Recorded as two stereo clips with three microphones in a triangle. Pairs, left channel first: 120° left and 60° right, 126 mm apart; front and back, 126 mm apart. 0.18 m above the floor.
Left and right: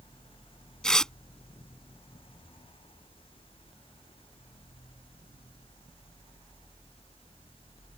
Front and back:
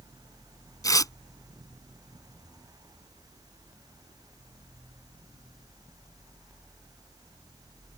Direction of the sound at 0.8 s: 40° left.